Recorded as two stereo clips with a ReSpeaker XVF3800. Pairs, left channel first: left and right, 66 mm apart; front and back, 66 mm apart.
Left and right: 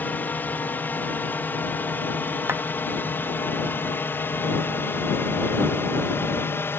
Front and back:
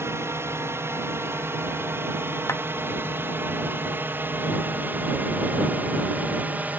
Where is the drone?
145° left; by 6.8 s 125° left.